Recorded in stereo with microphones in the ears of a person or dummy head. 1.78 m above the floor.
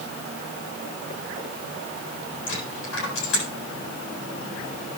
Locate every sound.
2.5 s a dropped coin: 80° left, 7.5 m